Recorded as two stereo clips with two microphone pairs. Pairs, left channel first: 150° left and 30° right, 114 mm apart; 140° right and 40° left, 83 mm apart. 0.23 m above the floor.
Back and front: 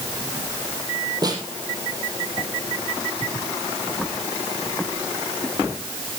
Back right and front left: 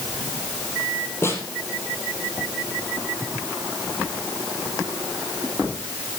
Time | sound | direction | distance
1.2 | a snare drum | 85° right | 4 m